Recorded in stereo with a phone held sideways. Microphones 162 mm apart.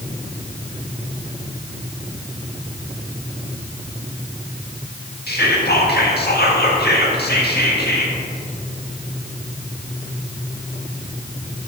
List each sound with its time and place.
5.3 s whispering: 80° left, 1.7 m